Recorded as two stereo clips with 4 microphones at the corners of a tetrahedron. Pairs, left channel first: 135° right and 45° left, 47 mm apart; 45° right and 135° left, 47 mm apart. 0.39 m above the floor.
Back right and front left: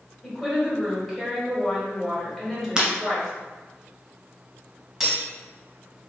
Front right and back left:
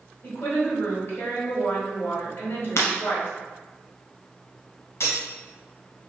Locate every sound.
0.2 s a woman speaking: 55° right, 1.4 m
2.8 s breaking glass: 30° right, 1.2 m
5.0 s cutlery clinking: 45° right, 1.5 m